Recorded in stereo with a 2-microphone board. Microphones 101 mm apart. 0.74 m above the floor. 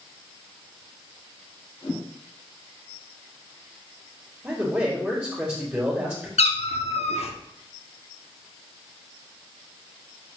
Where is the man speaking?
20° right (ahead or behind), 2.0 m.